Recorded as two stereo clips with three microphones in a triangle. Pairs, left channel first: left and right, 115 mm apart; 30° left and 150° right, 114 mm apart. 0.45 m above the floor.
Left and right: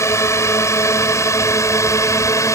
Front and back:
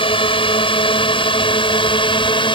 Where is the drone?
35° left; by 2.5 s 40° left.